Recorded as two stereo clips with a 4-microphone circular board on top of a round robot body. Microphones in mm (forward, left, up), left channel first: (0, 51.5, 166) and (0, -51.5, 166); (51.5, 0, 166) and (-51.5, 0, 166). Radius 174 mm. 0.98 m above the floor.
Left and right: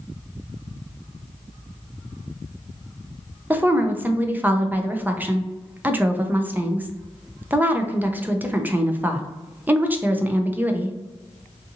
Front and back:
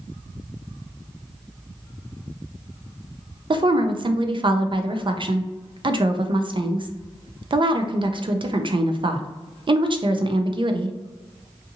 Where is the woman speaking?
160° right, 0.6 m.